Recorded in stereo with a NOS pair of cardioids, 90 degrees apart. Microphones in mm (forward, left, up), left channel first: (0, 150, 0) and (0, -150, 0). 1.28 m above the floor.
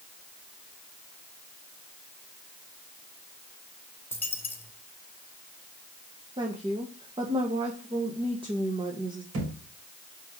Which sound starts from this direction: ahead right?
A thud, at 9.3 s.